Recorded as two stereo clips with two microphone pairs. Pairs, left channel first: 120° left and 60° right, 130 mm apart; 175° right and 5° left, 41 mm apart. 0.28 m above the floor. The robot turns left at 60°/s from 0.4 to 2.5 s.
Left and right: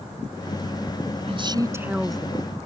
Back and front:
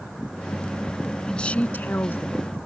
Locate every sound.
1.3 s a woman speaking: 100° right; by 2.6 s 175° right